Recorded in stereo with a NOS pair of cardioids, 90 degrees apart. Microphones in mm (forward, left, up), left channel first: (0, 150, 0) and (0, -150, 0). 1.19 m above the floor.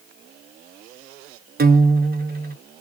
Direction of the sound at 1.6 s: 30° right.